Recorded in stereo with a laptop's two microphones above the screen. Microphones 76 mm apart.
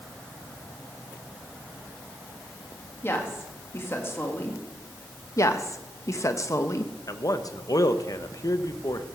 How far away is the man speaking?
About 0.9 m.